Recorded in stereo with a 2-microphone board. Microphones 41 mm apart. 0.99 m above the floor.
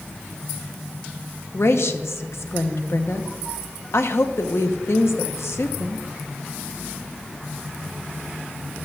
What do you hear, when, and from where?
1.5 s a woman speaking: 75° left (ahead or behind), 1.0 m